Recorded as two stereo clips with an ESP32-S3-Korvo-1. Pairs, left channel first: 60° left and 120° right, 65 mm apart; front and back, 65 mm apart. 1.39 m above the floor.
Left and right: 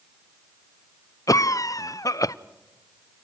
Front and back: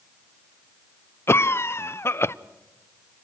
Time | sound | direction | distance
1.3 | a cough | 45° left | 0.6 m